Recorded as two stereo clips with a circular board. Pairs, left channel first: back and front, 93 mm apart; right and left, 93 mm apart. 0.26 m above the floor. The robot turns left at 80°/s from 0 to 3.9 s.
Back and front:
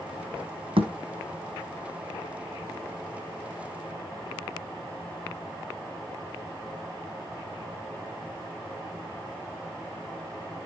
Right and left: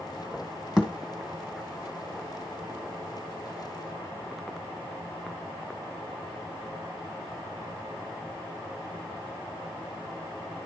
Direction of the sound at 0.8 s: 5° left.